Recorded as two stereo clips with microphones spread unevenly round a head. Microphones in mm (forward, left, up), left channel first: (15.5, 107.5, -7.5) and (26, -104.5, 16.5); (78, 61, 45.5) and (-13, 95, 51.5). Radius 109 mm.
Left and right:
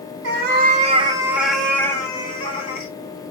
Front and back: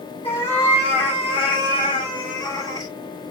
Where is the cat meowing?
80° right, 0.8 m; by 2.9 s 30° left, 1.5 m.